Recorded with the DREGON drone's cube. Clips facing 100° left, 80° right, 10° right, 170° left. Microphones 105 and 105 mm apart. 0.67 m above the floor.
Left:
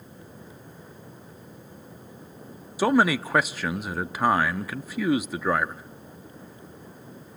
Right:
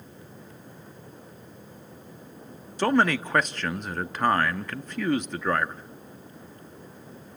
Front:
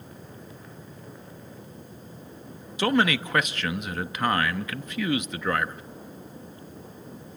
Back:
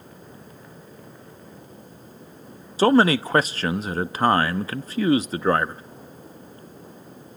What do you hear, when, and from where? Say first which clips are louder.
2.8 s a man speaking: left 1 dB, back 6 dB; 175° left, 0.6 m